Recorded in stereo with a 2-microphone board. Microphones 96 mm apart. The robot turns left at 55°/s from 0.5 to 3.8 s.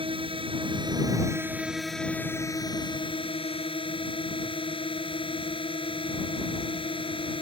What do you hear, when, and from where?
0.0 s a drone: 105° right; by 7.4 s 75° left